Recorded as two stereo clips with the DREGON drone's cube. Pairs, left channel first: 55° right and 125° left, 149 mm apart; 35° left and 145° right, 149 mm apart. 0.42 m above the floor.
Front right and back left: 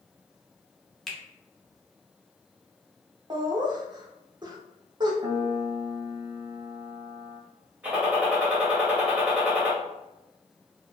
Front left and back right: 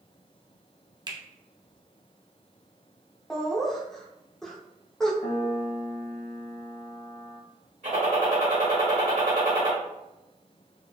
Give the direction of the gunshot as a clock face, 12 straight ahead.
5 o'clock.